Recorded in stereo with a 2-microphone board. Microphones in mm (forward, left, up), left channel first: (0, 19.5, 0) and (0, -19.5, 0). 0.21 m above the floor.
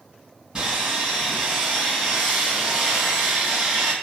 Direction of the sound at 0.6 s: 15° right (ahead or behind).